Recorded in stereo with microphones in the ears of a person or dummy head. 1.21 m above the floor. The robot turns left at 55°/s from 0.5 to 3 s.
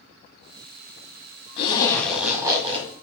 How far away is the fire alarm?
No fire alarm in this recording.